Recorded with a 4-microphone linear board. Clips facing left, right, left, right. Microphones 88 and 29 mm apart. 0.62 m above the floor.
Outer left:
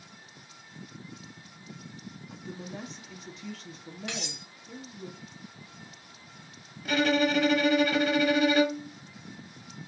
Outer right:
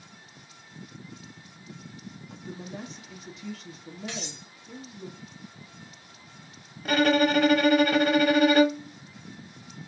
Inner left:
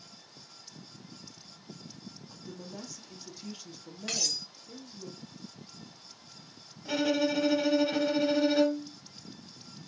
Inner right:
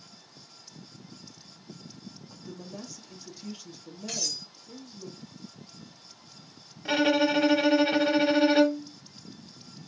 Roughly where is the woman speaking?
Centre.